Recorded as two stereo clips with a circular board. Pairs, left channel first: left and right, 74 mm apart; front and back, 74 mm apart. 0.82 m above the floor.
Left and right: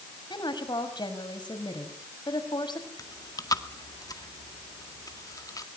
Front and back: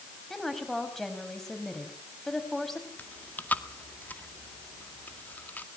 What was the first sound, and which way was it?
A woman speaking, 85° left.